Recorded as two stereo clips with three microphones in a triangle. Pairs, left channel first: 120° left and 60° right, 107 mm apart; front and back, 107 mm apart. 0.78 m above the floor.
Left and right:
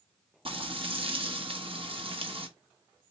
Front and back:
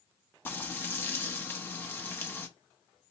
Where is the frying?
70° right, 1.0 m.